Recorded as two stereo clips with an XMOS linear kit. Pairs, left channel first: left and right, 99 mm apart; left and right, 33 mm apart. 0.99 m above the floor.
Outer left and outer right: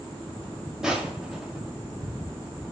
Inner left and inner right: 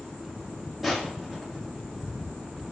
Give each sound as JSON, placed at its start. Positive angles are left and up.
{"t": 0.8, "sound": "crushing", "side_deg": -5, "distance_m": 2.0}